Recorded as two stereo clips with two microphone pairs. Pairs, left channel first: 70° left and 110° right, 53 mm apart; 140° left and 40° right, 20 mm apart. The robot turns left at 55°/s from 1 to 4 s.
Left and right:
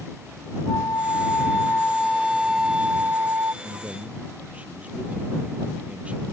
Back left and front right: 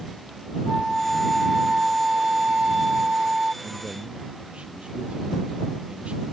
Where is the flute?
55° left; by 3.5 s 85° right.